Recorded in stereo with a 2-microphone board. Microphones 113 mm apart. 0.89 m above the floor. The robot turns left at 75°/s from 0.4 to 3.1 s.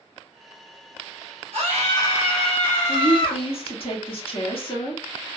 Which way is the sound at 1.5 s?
105° right.